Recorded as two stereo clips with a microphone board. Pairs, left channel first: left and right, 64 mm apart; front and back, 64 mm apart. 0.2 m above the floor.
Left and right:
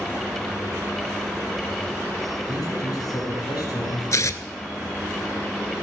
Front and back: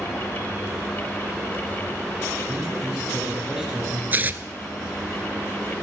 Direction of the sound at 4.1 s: 120° left.